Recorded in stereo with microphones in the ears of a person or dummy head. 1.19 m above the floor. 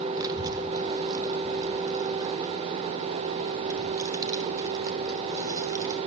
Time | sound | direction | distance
0.2 | a child speaking | 15° right (ahead or behind) | 1.7 m